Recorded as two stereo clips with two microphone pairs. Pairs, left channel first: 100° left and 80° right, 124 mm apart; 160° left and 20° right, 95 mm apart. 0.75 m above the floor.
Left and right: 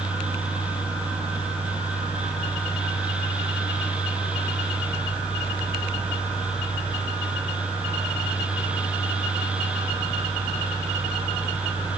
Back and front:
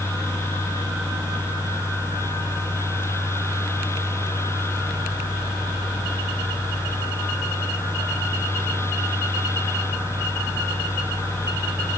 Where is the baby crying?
I don't hear a baby crying.